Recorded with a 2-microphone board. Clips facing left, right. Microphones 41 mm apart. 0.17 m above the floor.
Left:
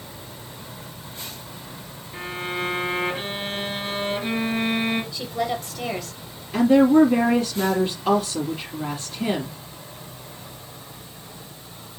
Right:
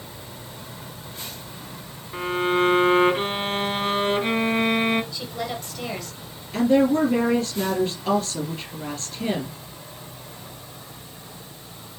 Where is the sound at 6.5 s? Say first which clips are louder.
Left 4 dB; 10° left (ahead or behind), 4.5 m.